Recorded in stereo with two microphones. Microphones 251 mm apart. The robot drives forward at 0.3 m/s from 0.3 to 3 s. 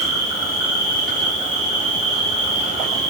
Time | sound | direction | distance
0.0 | an insect | 40° right (ahead or behind) | 0.9 m